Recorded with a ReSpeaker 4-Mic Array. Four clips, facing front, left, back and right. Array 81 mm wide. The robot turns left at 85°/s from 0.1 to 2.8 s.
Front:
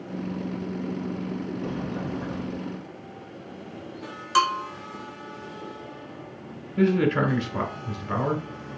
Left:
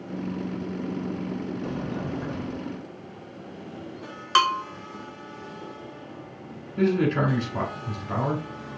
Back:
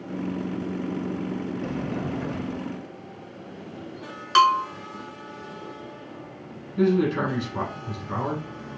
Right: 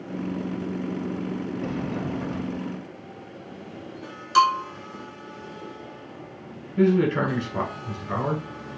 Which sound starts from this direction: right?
A sliding door, at 1.6 s.